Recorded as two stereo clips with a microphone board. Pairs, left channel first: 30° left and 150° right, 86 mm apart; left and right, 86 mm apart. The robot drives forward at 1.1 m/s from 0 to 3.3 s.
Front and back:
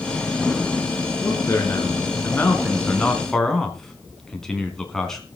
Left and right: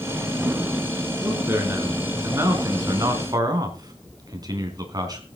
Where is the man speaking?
30° right, 4.5 m; by 5.2 s 55° right, 2.5 m.